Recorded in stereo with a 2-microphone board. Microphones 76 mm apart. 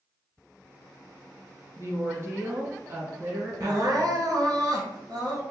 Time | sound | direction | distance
1.8 | a woman speaking | 40° right (ahead or behind) | 1.2 m
3.6 | crying | 60° right (ahead or behind) | 1.0 m